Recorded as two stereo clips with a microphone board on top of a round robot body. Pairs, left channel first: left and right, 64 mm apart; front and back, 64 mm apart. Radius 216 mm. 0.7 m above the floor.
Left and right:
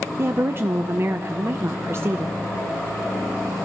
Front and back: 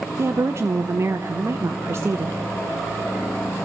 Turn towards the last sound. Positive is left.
turn(degrees=-140)